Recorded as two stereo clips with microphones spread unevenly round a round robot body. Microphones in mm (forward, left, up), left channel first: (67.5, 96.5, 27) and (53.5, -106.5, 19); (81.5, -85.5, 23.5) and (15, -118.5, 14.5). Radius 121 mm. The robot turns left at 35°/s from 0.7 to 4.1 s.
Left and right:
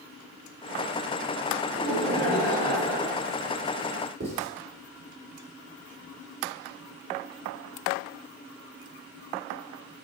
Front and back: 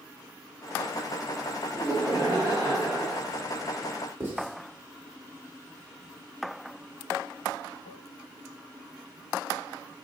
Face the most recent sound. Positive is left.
turn(degrees=-105)